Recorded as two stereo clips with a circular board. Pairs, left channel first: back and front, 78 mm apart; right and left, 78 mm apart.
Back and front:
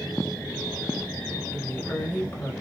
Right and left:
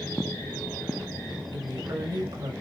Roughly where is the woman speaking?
Left.